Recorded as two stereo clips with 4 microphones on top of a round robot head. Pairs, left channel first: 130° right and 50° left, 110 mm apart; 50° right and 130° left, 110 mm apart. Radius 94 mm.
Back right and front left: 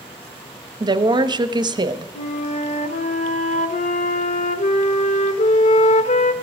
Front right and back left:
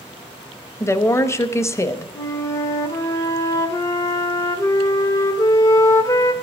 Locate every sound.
0.8 s a woman speaking: 10° left, 1.0 m
2.1 s a flute: 110° right, 1.1 m